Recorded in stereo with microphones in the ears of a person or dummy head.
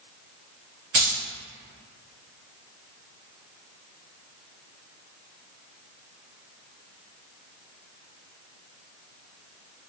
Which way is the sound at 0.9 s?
35° right (ahead or behind).